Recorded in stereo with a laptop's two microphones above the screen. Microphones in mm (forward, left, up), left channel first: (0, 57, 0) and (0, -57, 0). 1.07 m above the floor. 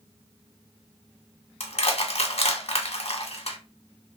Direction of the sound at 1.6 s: 60° left (ahead or behind).